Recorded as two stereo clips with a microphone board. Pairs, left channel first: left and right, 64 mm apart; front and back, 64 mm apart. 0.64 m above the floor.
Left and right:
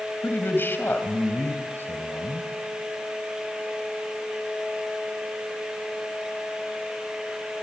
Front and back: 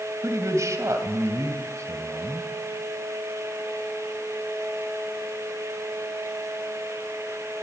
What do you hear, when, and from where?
0.2 s a man speaking: 145° left, 3 m